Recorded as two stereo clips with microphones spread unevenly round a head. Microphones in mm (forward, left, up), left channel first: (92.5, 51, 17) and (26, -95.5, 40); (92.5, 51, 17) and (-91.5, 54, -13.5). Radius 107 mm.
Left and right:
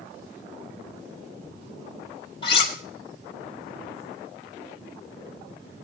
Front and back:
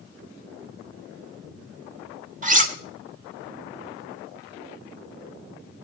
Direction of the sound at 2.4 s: 135° left.